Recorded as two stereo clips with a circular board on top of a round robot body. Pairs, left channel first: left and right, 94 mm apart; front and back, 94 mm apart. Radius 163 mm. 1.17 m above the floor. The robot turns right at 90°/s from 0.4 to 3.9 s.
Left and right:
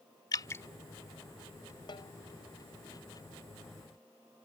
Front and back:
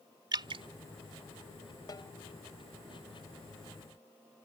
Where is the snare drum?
50° left; by 2.1 s 70° left.